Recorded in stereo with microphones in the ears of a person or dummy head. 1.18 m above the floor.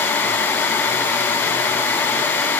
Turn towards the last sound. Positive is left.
No sound to turn to.